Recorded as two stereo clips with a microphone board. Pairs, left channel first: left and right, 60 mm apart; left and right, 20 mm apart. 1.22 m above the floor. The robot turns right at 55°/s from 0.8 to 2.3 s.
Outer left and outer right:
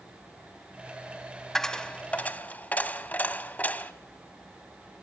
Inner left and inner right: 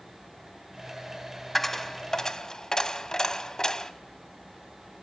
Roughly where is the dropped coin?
Ahead.